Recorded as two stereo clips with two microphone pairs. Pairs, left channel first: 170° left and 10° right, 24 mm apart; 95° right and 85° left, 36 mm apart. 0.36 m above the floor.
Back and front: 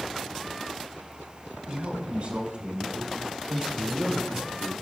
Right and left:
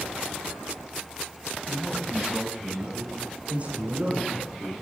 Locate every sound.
1.7 s a man speaking: 5° left, 2 m; by 4.7 s 50° left, 4.5 m